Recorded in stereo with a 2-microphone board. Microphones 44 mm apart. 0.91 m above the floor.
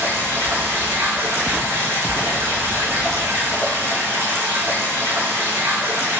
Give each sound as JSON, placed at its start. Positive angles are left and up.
{"t": 0.0, "sound": "running water", "side_deg": -70, "distance_m": 3.5}